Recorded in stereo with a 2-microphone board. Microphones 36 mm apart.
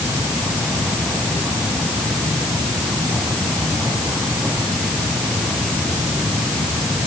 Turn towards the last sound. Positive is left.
No sound to turn to.